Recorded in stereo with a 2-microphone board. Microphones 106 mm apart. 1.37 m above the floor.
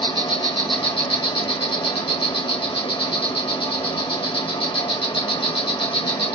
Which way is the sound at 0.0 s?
55° left (ahead or behind).